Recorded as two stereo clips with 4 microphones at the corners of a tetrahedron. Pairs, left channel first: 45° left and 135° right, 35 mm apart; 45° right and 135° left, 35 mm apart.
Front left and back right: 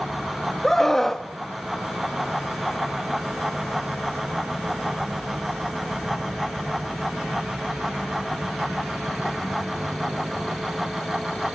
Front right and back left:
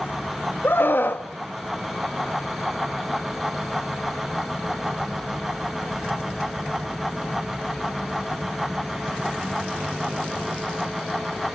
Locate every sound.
0.6 s a scream: 35° right, 1.4 m